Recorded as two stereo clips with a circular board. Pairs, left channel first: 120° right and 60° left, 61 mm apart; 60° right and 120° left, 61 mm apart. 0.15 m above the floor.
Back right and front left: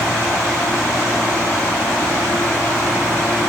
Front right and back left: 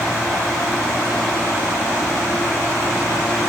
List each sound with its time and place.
Only background noise.